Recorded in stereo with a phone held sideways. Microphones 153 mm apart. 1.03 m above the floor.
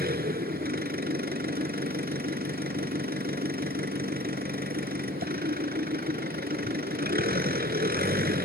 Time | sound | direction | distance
0.0 | an engine running | 90° right | ?